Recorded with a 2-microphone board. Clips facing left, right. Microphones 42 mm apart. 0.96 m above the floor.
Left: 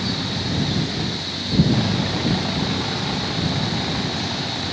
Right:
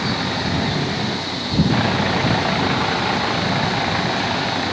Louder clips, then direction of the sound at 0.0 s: Right 4 dB; 40° right (ahead or behind).